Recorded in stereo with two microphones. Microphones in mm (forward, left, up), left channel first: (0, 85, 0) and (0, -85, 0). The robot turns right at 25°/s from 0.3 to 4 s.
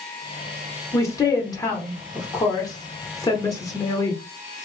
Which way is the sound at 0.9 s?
15° left (ahead or behind).